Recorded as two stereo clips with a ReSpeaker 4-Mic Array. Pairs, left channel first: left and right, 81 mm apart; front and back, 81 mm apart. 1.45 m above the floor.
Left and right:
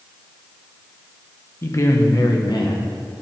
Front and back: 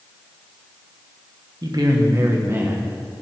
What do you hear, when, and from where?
1.6 s a man speaking: 145° left, 1.4 m; by 3.2 s 105° left, 1.8 m